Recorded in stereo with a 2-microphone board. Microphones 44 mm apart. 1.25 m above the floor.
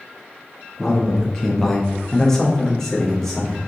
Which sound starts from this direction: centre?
A man speaking, at 0.8 s.